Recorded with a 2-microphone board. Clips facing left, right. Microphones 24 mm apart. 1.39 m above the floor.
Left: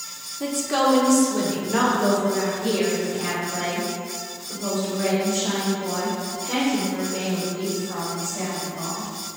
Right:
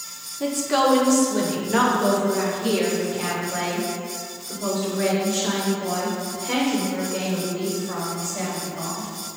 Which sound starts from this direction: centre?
A woman speaking, at 0.4 s.